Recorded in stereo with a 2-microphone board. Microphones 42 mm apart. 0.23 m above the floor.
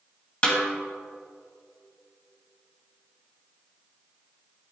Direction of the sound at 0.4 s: 30° left (ahead or behind).